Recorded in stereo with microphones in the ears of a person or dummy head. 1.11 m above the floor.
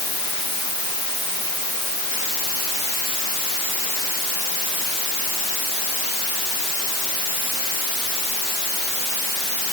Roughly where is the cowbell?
No cowbell in this recording.